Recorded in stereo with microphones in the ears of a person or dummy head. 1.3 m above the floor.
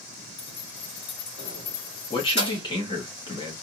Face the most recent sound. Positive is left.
turn(degrees=25)  # may be behind; listen again after turning